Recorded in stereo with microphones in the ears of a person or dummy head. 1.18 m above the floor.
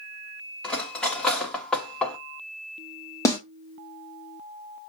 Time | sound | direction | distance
0.6 | cutlery clinking | 5° left (ahead or behind) | 1.3 m
3.2 | a snare drum | 20° left (ahead or behind) | 1.1 m